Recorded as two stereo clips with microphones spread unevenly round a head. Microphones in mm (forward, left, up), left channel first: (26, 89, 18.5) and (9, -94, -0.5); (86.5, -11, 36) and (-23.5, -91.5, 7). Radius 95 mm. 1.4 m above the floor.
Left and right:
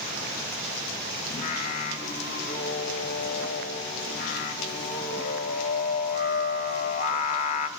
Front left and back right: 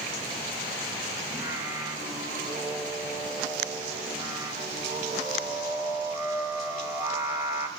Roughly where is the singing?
Behind left.